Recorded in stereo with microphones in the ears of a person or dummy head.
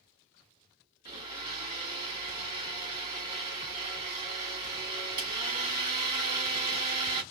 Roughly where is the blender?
Right.